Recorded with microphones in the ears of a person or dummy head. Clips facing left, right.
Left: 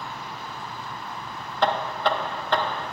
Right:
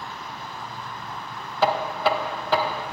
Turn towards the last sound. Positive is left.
turn(degrees=0)  # may be behind; listen again after turning